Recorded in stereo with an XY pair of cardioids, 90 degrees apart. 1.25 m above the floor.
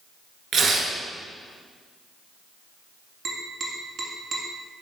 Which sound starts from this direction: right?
Tapping, at 3.2 s.